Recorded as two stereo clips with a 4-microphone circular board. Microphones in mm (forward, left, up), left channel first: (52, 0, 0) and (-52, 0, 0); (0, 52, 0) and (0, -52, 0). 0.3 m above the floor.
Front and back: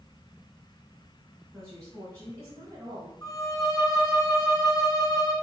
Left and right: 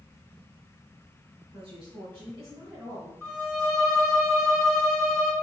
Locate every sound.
1.5 s a woman speaking: 120° right, 2 m; by 3.1 s 155° right, 1.4 m
3.2 s a violin: 5° right, 1.7 m